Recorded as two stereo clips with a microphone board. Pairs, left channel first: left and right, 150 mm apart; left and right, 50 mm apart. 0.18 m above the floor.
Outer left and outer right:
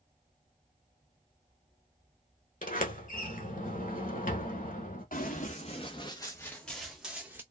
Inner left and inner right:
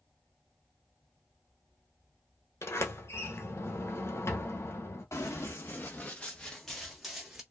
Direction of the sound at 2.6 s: 60° left (ahead or behind).